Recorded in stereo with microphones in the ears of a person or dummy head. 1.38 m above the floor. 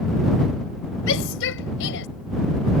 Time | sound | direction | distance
1.1 | a shout | 75° left (ahead or behind) | ?